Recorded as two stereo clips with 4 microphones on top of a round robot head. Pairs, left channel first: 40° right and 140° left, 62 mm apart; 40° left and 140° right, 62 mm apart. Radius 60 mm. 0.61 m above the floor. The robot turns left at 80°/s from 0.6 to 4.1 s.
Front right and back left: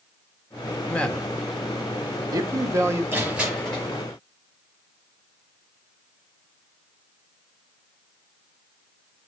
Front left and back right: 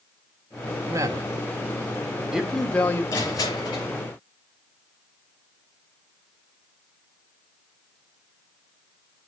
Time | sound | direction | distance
0.9 | a man speaking | 100° right | 2 m
3.1 | crushing | 85° left | 7.5 m